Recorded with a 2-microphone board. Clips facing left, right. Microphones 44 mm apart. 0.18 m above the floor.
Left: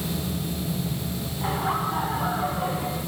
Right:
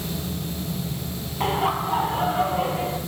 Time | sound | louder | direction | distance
1.4 | laughter | right 3 dB | 70° right (ahead or behind) | 5.5 m